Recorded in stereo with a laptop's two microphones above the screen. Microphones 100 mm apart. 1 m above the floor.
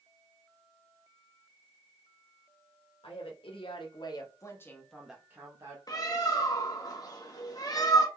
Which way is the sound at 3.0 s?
70° left (ahead or behind).